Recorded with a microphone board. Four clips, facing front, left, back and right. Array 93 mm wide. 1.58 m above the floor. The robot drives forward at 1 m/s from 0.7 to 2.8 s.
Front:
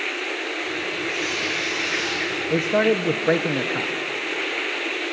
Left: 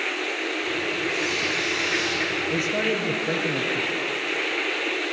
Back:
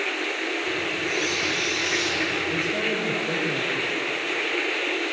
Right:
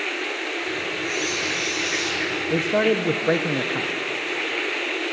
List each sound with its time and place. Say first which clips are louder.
1.1 s a squeak: even, back 1 dB; 40° left, 6 m; by 2.2 s 45° left, 5 m
2.5 s a man speaking: right 7 dB, front 6 dB; 30° right, 1.6 m; by 3.9 s 35° right, 1.3 m